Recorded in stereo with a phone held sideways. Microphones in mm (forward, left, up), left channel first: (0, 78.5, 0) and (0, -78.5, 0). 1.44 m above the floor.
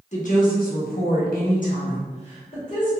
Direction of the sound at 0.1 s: 50° left (ahead or behind).